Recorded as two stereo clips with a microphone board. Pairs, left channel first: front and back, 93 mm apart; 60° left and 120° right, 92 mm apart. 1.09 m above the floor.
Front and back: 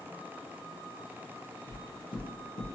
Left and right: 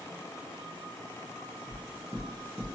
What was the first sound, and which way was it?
Knocking, straight ahead.